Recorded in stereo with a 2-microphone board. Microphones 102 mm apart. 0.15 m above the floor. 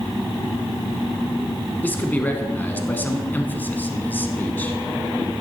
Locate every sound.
1.8 s a man speaking: 20° left (ahead or behind), 1.1 m